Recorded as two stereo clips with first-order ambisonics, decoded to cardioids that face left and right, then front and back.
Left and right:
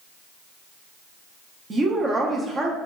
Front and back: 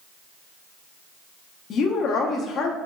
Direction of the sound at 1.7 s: 30° right.